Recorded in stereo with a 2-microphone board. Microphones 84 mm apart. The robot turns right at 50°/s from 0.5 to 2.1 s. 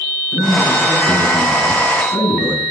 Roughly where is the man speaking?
Ahead left.